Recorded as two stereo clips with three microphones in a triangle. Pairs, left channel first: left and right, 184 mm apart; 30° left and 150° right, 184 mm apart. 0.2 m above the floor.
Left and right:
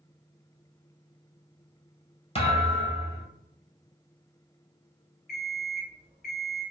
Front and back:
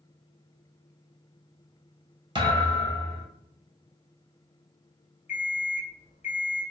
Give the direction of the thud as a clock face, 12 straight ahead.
7 o'clock.